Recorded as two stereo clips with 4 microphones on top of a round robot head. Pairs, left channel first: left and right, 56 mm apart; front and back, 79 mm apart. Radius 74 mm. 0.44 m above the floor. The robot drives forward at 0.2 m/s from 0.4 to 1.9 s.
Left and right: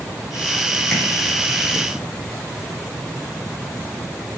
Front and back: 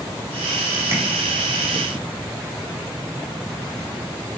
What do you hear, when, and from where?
0.9 s tapping: 165° left, 1.3 m